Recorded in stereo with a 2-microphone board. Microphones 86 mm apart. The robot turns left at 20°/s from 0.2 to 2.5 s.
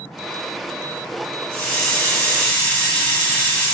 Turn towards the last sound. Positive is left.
turn(degrees=20)  # may be behind; listen again after turning